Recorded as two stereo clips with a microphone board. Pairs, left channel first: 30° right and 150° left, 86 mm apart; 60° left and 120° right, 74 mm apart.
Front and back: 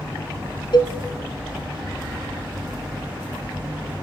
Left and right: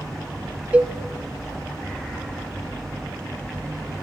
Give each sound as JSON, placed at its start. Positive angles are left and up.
{"t": 0.7, "sound": "a cowbell", "azimuth_deg": -50, "distance_m": 0.6}